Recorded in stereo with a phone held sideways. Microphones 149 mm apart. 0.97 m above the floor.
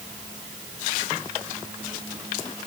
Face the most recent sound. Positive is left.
No sound to turn to.